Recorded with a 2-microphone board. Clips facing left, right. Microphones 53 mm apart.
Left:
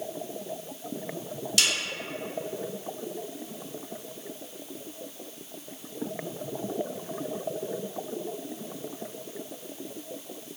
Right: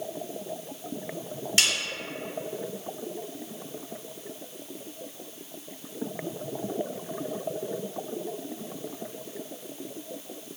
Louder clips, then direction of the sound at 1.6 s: Right 1 dB; 30° right (ahead or behind).